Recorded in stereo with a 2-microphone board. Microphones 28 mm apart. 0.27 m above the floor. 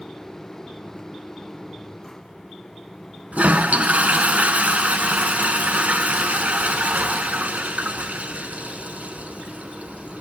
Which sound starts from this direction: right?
A toilet flushing, at 3.3 s.